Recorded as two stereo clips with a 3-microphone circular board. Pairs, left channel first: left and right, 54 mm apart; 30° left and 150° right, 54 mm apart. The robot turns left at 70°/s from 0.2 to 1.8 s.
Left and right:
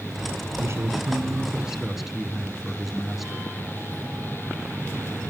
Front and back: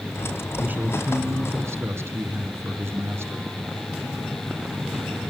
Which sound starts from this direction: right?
A man speaking, at 0.6 s.